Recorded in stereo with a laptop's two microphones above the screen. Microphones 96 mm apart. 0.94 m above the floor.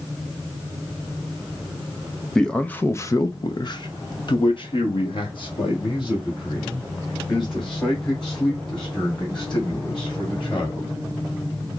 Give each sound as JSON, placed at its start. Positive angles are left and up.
{"t": 2.4, "sound": "a man speaking", "side_deg": 5, "distance_m": 0.7}